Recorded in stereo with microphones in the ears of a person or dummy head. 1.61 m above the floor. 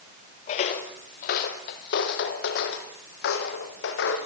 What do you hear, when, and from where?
0.5 s footsteps: 40° left (ahead or behind), 2 m; by 4.2 s 70° left (ahead or behind), 5.5 m